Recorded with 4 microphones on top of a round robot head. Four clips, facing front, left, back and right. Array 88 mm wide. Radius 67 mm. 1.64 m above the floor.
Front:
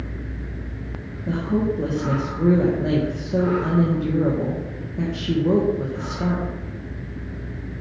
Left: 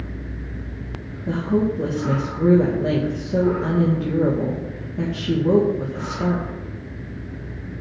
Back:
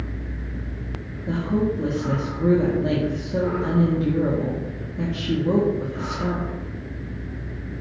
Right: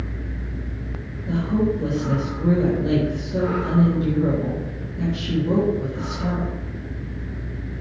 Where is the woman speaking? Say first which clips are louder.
Left 1 dB, front 1 dB; 45° left, 2 m.